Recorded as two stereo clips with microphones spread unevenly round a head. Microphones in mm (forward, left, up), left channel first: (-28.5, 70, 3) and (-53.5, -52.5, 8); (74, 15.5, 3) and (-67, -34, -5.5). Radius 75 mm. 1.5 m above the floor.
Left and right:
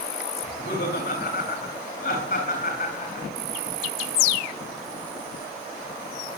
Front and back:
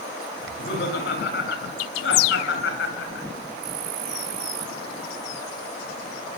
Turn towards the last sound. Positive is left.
turn(degrees=30)